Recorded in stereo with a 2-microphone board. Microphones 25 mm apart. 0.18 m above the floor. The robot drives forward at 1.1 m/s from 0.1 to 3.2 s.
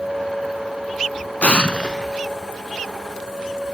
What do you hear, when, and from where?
1.4 s an explosion: 60° left (ahead or behind), 0.6 m; by 2.2 s 25° left (ahead or behind), 1.1 m